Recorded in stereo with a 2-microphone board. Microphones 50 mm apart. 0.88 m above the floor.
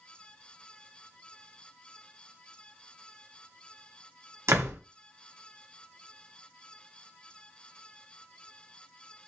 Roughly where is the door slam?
Right.